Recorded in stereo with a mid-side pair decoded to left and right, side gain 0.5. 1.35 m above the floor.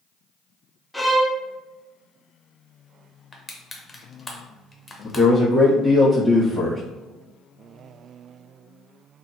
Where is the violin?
5° left, 0.5 m.